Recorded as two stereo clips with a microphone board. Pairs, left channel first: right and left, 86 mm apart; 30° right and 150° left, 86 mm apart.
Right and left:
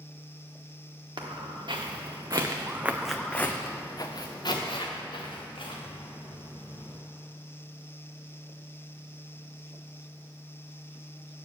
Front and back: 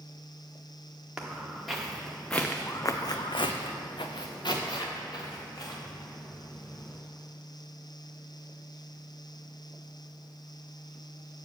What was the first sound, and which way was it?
Footsteps, 65° left.